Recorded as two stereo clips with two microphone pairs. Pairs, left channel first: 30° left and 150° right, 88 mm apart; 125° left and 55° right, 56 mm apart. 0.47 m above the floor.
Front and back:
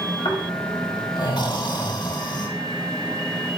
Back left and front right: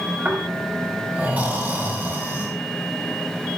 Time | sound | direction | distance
0.2 | snoring | straight ahead | 5.5 m